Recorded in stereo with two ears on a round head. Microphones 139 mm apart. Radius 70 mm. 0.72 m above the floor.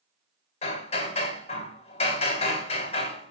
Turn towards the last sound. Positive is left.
turn(degrees=45)  # may be behind; listen again after turning